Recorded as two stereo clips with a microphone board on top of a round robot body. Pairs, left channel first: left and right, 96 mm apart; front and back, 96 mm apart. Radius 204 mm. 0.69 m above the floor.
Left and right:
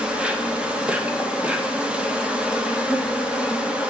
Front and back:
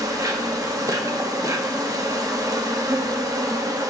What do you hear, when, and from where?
0.0 s an insect: 160° right, 1.3 m